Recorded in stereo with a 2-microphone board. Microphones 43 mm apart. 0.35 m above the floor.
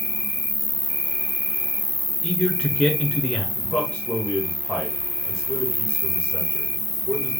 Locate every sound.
0.0 s an insect: 75° left (ahead or behind), 0.8 m
2.2 s a man speaking: 20° left (ahead or behind), 1.0 m
3.5 s a man speaking: 20° left (ahead or behind), 1.4 m